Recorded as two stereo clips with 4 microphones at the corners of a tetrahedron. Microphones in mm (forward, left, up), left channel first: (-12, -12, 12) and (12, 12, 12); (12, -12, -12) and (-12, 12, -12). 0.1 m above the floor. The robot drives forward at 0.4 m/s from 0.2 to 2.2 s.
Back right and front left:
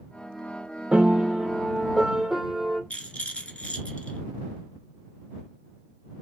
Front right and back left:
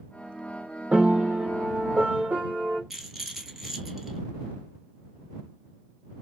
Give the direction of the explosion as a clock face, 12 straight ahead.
No explosion in this recording.